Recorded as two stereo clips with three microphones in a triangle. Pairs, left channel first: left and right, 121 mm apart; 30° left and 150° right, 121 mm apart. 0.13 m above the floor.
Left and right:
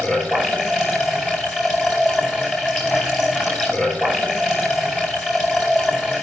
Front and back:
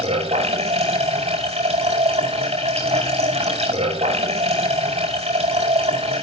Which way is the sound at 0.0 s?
175° left.